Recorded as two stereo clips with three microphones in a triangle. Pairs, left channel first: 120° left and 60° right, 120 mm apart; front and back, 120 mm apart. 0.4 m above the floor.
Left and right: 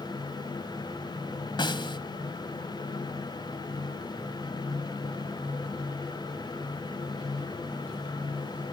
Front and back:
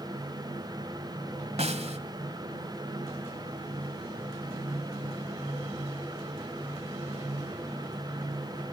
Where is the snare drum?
165° left, 1.7 m.